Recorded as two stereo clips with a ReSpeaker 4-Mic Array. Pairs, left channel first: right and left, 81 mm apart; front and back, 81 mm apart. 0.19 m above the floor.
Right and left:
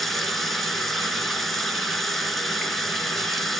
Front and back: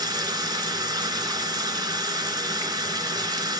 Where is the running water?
175° right, 2.5 m.